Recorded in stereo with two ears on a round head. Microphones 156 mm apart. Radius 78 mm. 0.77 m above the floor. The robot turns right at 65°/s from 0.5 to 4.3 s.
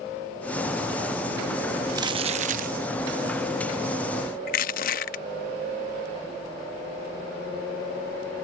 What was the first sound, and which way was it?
Crumpling, 155° right.